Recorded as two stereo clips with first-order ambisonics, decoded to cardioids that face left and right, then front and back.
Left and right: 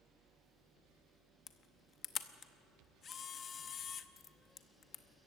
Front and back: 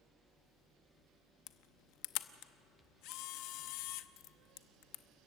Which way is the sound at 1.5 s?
25° left.